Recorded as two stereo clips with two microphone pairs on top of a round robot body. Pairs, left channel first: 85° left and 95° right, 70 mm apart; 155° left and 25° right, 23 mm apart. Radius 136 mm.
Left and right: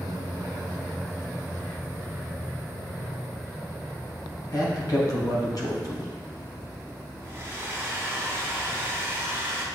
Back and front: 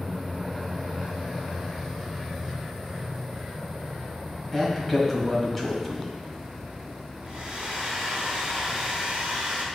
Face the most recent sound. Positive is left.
turn(degrees=-40)